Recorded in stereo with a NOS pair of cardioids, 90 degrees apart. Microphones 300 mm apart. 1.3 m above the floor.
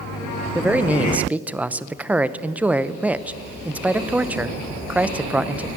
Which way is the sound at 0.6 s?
5° right.